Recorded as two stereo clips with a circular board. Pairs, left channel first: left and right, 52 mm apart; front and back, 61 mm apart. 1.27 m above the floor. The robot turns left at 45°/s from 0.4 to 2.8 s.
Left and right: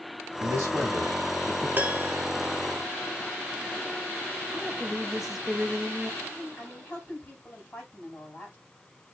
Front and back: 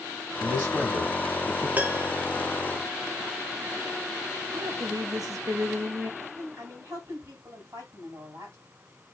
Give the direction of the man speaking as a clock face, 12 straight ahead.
4 o'clock.